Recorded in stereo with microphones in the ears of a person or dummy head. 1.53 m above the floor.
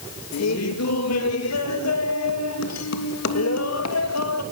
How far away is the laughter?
About 3 m.